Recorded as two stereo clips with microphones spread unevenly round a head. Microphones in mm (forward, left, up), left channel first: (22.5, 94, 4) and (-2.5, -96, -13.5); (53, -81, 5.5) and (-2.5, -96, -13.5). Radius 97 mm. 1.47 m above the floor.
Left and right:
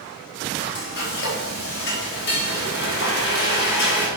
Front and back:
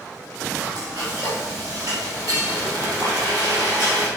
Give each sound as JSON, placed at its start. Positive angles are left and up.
{"t": 0.6, "sound": "frying", "azimuth_deg": 110, "distance_m": 4.5}